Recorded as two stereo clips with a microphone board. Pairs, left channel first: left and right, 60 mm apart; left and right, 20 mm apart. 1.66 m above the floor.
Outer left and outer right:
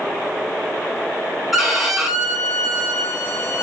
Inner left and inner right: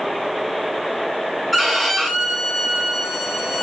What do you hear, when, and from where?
1.5 s a violin: 5° right (ahead or behind), 3.5 m